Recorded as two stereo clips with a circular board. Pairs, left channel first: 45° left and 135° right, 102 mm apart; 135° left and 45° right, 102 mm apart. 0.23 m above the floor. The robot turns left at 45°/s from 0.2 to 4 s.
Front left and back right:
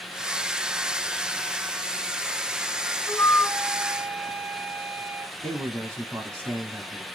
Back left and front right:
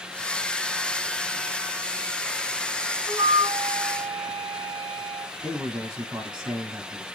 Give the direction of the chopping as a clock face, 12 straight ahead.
No chopping in this recording.